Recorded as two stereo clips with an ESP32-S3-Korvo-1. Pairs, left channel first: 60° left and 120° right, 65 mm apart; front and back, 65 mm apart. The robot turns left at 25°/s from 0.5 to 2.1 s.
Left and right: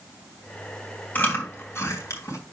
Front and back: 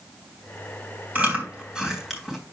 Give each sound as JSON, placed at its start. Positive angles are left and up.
{"t": 1.1, "sound": "chewing", "azimuth_deg": 120, "distance_m": 3.0}